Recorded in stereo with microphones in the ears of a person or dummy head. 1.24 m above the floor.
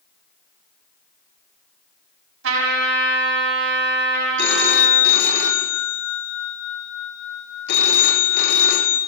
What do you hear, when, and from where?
2.4 s a trumpet: 75° right (ahead or behind), 4 m
4.4 s a phone ringing: 60° left (ahead or behind), 0.8 m